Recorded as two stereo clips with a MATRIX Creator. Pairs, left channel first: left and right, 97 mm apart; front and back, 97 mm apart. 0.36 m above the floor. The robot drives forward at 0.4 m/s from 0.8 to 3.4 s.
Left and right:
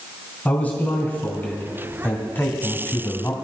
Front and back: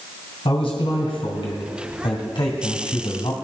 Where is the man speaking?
20° left, 2.5 m; by 3.3 s 30° left, 1.7 m.